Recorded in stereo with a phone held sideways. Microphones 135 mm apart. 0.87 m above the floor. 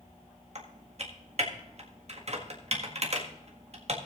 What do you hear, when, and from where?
0.6 s typing on a keyboard: 50° right (ahead or behind), 1.6 m